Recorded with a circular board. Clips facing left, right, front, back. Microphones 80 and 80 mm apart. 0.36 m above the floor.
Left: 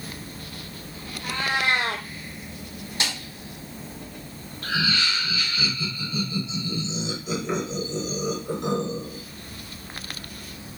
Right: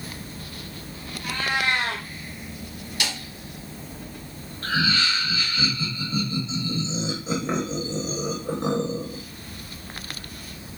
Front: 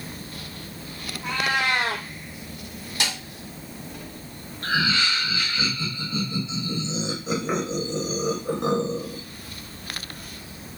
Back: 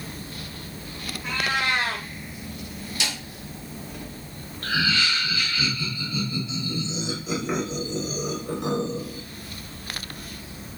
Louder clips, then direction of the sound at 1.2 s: Even, front 2 dB; 25° left.